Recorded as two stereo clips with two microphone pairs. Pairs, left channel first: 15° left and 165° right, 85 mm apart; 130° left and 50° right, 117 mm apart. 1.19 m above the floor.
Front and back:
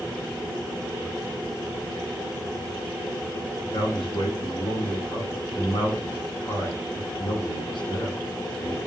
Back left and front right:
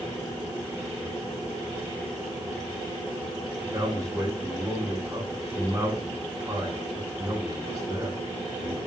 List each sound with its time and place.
3.6 s a man speaking: 15° left, 9 m